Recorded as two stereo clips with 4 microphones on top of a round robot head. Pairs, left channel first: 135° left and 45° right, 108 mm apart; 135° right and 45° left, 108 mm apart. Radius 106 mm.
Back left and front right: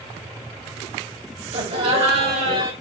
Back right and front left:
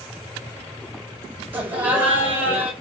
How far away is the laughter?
About 2 m.